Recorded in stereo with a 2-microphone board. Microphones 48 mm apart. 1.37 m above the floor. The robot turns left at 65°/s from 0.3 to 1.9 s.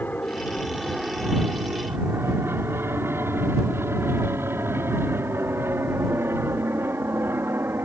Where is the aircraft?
40° left (ahead or behind); by 7.8 s 60° right (ahead or behind).